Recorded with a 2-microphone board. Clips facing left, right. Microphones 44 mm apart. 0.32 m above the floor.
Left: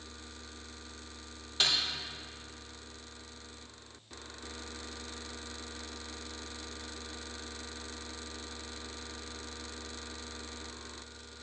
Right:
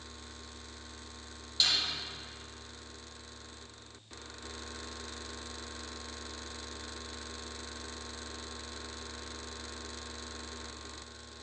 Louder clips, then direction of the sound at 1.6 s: Left 1 dB; 40° left (ahead or behind).